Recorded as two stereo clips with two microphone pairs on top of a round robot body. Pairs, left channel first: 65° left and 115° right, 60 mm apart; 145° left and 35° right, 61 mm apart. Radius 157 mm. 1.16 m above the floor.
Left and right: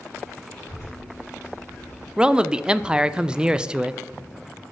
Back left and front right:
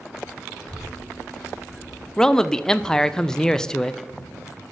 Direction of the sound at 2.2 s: 145° right.